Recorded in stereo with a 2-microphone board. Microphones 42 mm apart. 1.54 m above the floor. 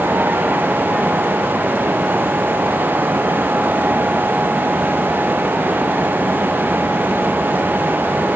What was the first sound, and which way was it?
Only background noise.